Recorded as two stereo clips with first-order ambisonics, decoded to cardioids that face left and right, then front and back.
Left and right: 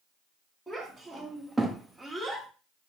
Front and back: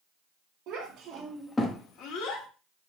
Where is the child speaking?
175° right, 0.9 m; by 2.5 s straight ahead, 1.1 m.